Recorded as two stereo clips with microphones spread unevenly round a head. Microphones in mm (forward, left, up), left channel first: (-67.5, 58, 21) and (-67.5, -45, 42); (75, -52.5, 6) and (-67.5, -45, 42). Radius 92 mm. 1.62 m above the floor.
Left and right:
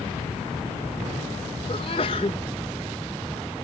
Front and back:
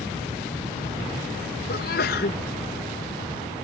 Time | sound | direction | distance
1.7 | a sneeze | 35° left | ?